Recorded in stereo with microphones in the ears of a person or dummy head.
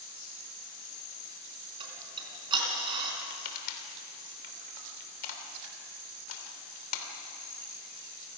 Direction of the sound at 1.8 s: 30° right (ahead or behind).